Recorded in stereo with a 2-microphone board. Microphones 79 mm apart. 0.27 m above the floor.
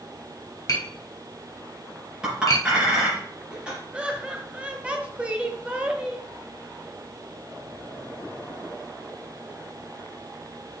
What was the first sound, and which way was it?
Tapping, 45° left (ahead or behind).